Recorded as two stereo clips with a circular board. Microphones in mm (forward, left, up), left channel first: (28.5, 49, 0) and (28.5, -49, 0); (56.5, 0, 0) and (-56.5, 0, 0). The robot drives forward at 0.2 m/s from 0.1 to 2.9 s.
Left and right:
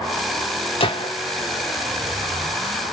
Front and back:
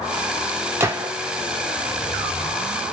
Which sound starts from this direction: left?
A gunshot, at 0.8 s.